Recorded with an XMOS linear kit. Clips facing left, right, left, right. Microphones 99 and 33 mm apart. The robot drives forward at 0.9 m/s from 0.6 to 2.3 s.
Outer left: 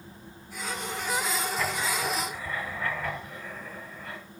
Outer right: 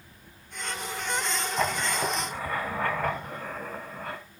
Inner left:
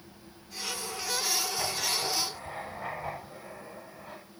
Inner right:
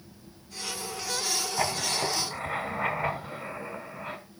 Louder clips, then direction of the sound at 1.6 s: Outer right 2 dB, inner right 3 dB; 40° right (ahead or behind).